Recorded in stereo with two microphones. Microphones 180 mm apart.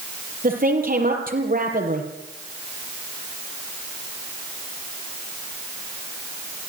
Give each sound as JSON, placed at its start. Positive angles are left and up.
{"t": 0.4, "sound": "a woman speaking", "side_deg": -55, "distance_m": 6.0}